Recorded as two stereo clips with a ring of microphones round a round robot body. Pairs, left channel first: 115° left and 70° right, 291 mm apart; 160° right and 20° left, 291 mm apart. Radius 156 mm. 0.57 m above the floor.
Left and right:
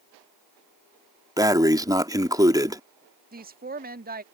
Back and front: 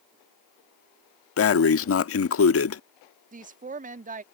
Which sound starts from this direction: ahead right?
A woman speaking, at 3.3 s.